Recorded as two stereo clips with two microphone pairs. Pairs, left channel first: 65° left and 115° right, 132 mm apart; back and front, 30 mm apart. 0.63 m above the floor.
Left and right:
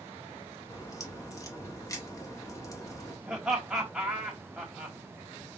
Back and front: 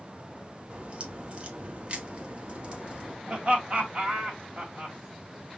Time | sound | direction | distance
0.7 | a crack | 10° left | 0.9 m
3.3 | laughter | 35° right | 1.6 m